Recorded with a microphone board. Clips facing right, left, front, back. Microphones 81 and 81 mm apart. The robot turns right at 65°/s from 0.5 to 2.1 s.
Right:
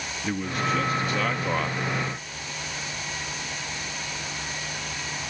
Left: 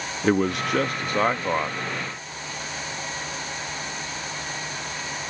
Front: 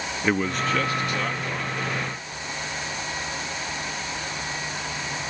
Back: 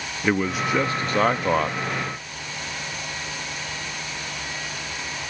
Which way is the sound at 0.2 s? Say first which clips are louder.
Left 6 dB, back 1 dB; 95° left.